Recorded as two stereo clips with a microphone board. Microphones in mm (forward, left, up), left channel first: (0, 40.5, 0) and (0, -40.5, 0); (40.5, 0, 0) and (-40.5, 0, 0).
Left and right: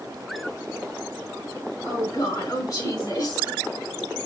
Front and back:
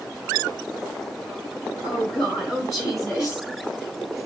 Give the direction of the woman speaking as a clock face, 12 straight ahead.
9 o'clock.